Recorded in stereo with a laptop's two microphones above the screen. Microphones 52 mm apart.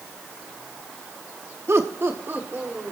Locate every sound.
1.7 s laughter: 55° right (ahead or behind), 1.0 m; by 2.9 s 40° right (ahead or behind), 2.5 m